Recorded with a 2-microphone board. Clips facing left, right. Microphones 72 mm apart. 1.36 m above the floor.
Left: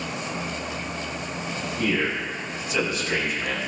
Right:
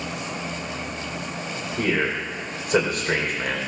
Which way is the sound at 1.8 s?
50° right (ahead or behind).